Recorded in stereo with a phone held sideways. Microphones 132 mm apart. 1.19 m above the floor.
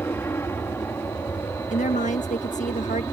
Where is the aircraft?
15° left (ahead or behind); by 3.1 s 20° left (ahead or behind).